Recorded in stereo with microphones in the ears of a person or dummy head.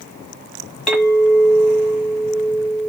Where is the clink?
5° left (ahead or behind), 1.8 m.